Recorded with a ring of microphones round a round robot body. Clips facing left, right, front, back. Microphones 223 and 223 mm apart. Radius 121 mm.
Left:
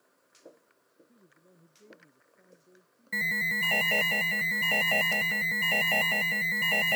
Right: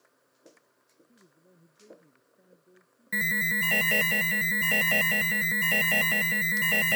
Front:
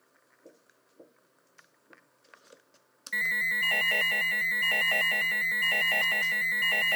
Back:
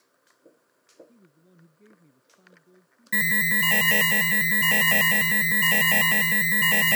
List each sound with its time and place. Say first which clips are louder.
1.1 s a man speaking: right 3 dB, back 10 dB; straight behind
3.1 s an alarm: right 4 dB, back 14 dB; 160° right